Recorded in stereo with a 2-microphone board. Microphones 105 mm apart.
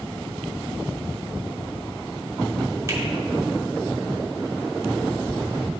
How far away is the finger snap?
About 1.7 m.